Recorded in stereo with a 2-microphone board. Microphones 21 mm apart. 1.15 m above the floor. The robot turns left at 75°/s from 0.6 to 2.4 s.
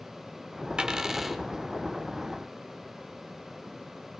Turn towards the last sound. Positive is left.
turn(degrees=105)